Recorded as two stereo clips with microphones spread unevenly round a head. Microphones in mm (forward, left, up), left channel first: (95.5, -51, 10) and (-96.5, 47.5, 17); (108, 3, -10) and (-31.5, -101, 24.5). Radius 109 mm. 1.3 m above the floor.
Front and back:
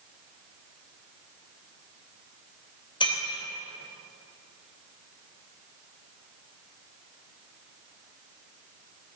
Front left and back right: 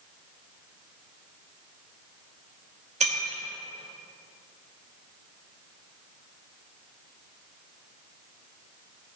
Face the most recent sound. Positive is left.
turn(degrees=-95)